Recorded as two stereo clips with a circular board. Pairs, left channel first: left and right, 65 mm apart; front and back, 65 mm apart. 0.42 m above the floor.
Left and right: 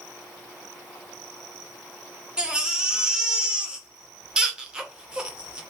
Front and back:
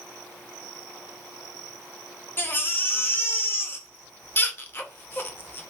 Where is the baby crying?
25° right, 0.6 m.